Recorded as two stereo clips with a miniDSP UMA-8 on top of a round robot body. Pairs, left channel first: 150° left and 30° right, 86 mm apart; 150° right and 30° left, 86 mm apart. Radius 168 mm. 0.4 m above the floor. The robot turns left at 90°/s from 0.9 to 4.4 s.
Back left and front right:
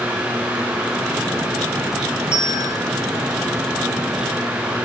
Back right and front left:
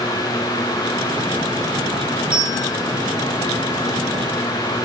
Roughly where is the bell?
Ahead right.